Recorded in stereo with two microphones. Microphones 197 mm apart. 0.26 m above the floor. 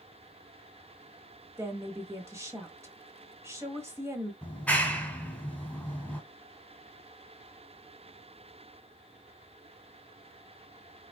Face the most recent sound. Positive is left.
turn(degrees=5)  # may be behind; listen again after turning